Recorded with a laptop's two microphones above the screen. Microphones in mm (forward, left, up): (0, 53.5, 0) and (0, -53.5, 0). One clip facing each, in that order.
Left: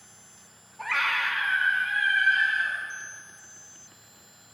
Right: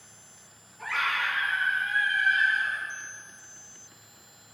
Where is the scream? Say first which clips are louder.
Left 1 dB; 60° left (ahead or behind), 2.5 m; by 2.8 s 50° left (ahead or behind), 3.5 m.